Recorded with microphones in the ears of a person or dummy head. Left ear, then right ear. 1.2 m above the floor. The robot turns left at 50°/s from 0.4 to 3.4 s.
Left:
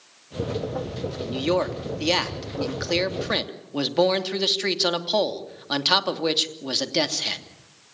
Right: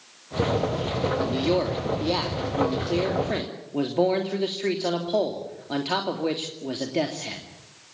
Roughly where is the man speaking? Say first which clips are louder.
Left 4 dB; behind.